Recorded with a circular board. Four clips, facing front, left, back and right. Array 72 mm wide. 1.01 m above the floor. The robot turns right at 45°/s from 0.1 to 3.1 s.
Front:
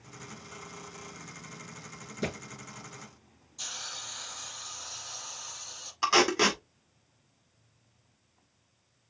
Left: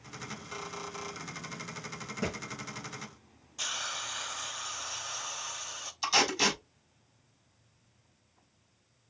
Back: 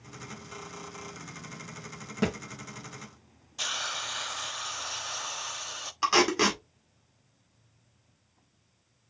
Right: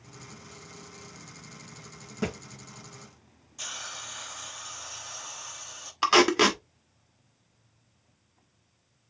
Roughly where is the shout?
No shout in this recording.